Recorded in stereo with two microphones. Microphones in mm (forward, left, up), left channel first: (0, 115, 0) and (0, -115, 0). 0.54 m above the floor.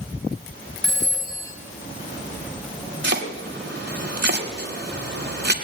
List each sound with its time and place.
0.8 s a phone ringing: 60° right (ahead or behind), 2.5 m
3.0 s chopping: 50° right (ahead or behind), 1.2 m